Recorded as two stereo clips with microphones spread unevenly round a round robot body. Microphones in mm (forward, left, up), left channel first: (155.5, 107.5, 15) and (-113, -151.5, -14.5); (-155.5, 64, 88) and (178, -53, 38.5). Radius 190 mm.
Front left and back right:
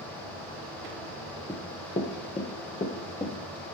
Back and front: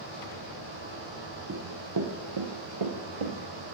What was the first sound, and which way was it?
Running footsteps, 5° left.